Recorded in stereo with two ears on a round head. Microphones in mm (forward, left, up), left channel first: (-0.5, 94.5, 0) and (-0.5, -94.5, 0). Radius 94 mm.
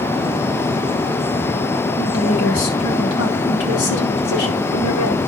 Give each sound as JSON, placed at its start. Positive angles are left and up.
{"t": 2.0, "sound": "a woman speaking", "side_deg": 70, "distance_m": 5.0}